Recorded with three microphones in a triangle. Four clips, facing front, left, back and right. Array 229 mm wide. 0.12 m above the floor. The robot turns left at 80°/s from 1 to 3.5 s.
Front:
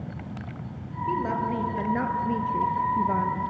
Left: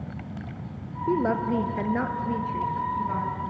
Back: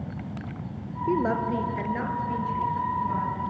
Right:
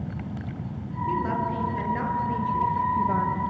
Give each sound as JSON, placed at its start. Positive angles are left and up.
{"t": 1.1, "sound": "a woman speaking", "azimuth_deg": 130, "distance_m": 2.5}